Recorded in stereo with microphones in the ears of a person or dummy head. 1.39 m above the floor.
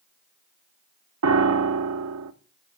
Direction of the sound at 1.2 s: 80° right.